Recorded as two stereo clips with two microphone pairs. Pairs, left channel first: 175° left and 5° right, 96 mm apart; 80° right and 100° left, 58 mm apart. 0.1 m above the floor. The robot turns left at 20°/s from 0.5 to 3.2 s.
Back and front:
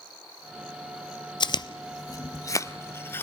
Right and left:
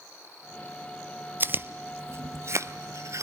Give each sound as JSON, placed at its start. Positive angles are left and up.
{"t": 1.4, "sound": "chewing", "azimuth_deg": 150, "distance_m": 0.6}